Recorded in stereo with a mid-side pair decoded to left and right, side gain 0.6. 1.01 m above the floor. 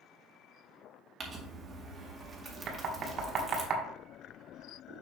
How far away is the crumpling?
About 2 m.